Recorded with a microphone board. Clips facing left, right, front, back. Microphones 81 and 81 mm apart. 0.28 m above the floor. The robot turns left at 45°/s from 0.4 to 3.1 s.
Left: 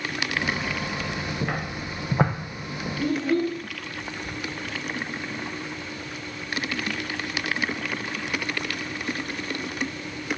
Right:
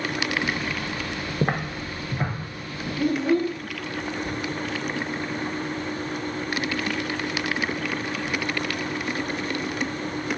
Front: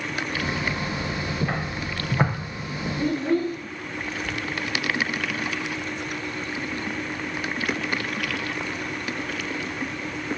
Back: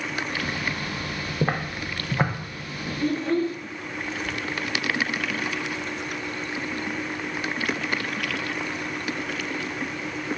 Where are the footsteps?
135° right, 0.8 m; by 2.9 s 35° left, 1.4 m.